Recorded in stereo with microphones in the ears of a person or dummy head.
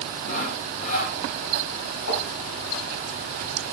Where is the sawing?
45° left (ahead or behind), 3.5 m.